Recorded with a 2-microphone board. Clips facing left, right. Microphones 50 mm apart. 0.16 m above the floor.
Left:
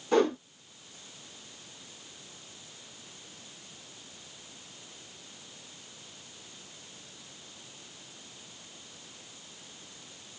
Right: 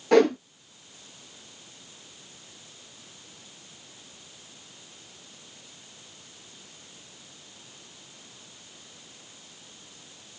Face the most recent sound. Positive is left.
turn(degrees=-70)  # may be behind; listen again after turning